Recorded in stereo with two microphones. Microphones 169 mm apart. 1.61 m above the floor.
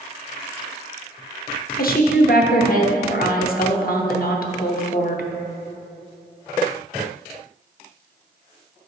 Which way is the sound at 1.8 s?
60° left (ahead or behind).